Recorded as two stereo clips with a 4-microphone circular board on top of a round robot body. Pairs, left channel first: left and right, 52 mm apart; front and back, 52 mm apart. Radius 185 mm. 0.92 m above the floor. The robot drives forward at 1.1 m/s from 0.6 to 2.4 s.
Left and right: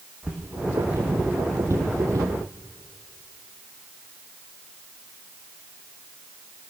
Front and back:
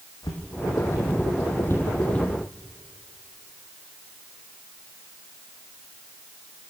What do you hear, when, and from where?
0.2 s footsteps: 15° right, 3 m; by 2.3 s 80° right, 1.9 m